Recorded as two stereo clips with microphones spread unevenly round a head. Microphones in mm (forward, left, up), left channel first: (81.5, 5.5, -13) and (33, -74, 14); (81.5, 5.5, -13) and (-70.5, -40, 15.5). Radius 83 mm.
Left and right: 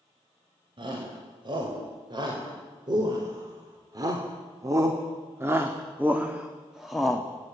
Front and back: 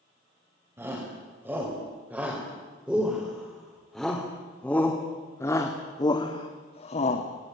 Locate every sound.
0.8 s a shout: 85° right, 5 m; by 7.5 s 20° right, 2.0 m